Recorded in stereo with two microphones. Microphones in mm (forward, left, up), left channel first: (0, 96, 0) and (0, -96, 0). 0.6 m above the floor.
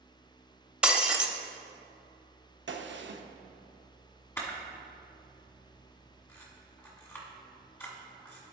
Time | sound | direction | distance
0.8 | breaking glass | 5° right (ahead or behind) | 0.6 m
2.7 | a gunshot | 75° right (ahead or behind) | 0.6 m
4.4 | a camera shutter | 15° left (ahead or behind) | 1.4 m